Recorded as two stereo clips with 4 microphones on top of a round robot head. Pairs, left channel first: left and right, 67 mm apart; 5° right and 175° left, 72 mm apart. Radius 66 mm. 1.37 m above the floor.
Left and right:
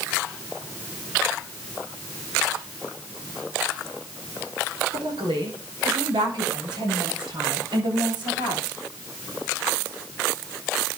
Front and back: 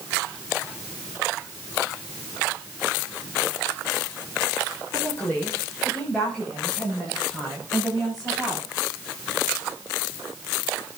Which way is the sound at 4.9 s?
75° right.